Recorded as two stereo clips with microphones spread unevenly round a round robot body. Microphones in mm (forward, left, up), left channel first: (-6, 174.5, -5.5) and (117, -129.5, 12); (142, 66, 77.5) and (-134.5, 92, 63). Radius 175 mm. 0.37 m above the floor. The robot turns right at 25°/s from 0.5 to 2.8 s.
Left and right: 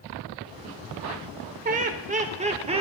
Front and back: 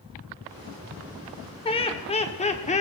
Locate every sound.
1.6 s laughter: 50° right, 1.4 m; by 2.8 s 20° right, 1.4 m